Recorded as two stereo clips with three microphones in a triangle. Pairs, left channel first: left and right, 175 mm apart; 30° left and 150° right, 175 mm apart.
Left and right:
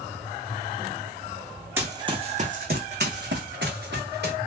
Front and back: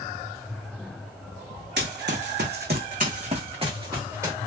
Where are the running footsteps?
165° right, 0.7 m; by 4.4 s 75° right, 1.2 m.